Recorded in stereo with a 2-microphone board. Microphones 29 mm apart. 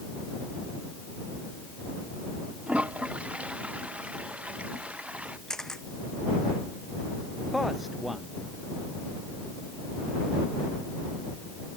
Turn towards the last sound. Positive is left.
turn(degrees=0)  # may be behind; listen again after turning